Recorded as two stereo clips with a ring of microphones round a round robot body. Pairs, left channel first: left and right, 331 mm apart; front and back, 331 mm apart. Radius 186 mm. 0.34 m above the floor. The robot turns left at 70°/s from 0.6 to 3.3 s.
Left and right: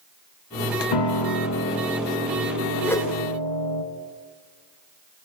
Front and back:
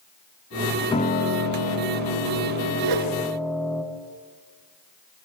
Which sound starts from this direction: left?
A piano, at 0.9 s.